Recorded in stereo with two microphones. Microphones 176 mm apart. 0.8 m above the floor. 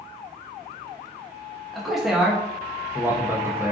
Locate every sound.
1.7 s a man speaking: centre (ahead or behind), 0.8 m; by 3.7 s 10° right (ahead or behind), 0.8 m